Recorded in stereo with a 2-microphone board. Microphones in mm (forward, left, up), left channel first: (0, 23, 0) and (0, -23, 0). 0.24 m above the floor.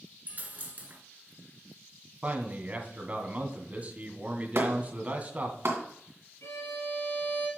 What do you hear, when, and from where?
0.3 s a dropped coin: 35° right (ahead or behind), 0.9 m
2.2 s a man speaking: 30° right (ahead or behind), 1.7 m
4.5 s a clap: 55° right (ahead or behind), 2.0 m
6.4 s a violin: 65° left (ahead or behind), 4 m